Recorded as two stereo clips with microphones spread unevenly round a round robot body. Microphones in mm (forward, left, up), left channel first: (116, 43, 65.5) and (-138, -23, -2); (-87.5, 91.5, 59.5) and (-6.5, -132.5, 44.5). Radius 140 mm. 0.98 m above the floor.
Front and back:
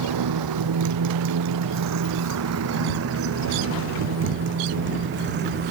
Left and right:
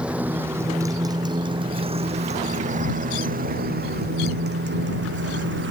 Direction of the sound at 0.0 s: 155° right.